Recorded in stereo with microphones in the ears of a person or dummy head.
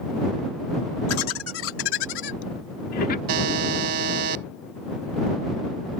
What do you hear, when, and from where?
1.1 s laughter: 85° left; by 3.2 s 50° left (ahead or behind)
3.3 s a buzzer: 55° right (ahead or behind)